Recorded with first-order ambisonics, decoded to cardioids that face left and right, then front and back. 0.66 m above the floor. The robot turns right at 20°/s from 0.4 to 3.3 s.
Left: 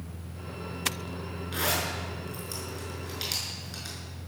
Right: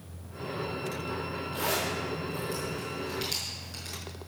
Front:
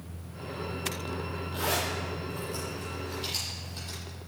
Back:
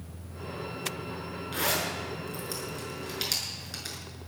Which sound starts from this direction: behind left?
A zipper, at 1.5 s.